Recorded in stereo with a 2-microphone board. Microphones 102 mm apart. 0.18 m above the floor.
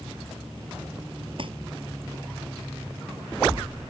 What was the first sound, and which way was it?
Crumpling, 55° right (ahead or behind).